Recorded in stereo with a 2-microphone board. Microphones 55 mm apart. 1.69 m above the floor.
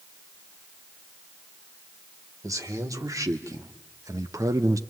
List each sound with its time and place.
2.4 s a man speaking: 85° right, 2.5 m; by 4.8 s 70° right (ahead or behind), 0.8 m